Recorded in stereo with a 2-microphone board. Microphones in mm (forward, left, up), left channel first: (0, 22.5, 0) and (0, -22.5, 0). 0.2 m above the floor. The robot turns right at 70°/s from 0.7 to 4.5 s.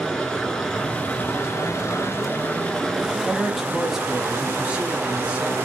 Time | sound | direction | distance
0.0 | running water | 15° left | 1.0 m
3.2 | a man speaking | 10° left (ahead or behind) | 1.1 m